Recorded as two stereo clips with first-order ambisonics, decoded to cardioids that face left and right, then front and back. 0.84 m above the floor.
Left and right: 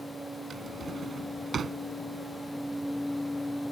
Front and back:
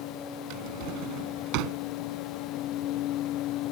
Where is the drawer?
160° right.